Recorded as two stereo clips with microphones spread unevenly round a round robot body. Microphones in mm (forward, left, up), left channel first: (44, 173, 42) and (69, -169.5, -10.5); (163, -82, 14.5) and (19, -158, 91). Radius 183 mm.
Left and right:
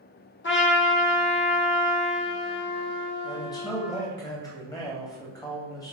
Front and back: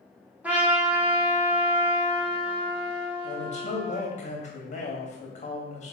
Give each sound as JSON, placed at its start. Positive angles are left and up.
{"t": 0.4, "sound": "a trumpet", "azimuth_deg": 75, "distance_m": 1.4}
{"t": 3.2, "sound": "a man speaking", "azimuth_deg": 10, "distance_m": 2.5}